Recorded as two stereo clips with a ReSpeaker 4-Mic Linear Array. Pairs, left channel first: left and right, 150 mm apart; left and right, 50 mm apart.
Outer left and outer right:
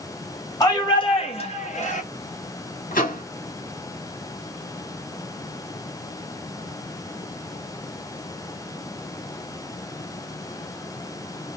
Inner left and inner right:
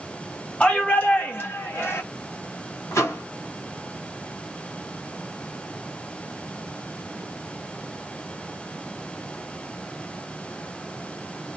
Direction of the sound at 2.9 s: 80° left.